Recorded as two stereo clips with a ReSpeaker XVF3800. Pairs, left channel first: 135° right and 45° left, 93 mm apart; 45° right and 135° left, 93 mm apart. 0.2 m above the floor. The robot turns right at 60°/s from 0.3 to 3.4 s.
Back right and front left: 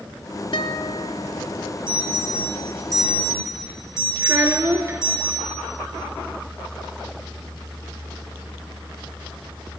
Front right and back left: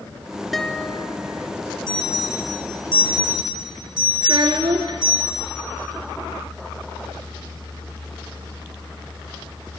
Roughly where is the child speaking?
Left.